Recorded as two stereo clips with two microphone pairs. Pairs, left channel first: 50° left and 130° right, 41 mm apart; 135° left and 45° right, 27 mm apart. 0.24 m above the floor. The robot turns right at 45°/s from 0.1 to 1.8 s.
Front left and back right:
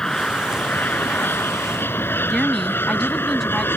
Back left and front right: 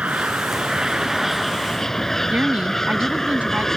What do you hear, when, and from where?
0.0 s an aircraft: 20° right; by 3.8 s 55° left
2.3 s a woman speaking: 30° right